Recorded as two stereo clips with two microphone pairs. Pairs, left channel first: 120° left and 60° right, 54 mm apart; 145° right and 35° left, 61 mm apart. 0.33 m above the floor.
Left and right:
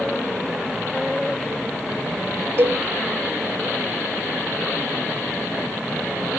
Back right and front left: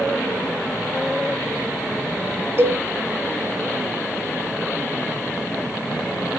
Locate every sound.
2.6 s a cowbell: 10° right, 0.9 m